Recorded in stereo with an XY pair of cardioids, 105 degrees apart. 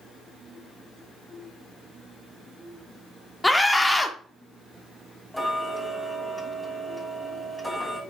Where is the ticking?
10° left, 5 m.